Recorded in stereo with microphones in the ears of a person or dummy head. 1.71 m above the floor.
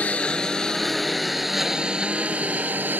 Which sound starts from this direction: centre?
A lawn mower, at 0.0 s.